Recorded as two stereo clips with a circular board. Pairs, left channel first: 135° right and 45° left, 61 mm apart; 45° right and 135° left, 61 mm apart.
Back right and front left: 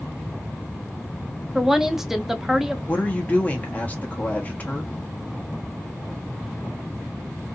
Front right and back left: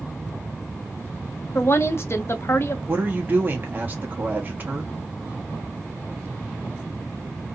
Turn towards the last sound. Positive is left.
turn(degrees=175)